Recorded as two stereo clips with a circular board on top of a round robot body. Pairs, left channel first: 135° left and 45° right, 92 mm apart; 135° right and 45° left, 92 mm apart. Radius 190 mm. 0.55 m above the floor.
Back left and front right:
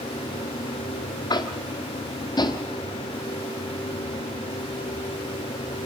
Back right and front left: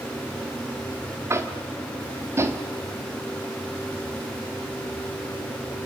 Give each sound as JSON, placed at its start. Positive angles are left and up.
{"t": 1.3, "sound": "tapping", "azimuth_deg": 105, "distance_m": 1.7}